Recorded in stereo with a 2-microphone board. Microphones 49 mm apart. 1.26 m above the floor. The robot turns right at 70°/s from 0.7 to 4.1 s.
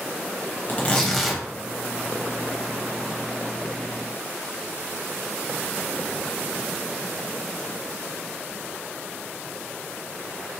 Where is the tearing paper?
140° left, 0.9 m; by 1.4 s 165° right, 0.9 m.